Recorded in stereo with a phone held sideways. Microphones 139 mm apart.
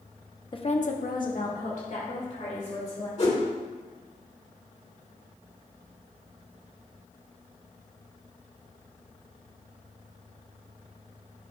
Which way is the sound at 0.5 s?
35° left (ahead or behind).